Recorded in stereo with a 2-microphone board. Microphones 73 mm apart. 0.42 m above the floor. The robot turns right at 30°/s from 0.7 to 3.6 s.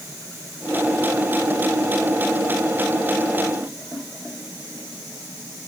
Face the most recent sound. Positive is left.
No sound to turn to.